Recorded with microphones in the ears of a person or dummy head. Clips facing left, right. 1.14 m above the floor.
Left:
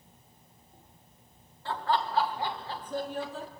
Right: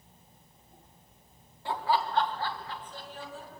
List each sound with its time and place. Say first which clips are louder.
1.6 s laughter: right 1 dB; 15° right (ahead or behind), 2 m; by 3.5 s 65° left (ahead or behind), 1.9 m